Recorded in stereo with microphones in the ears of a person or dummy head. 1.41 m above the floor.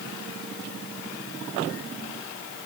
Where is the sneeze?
I don't hear a sneeze.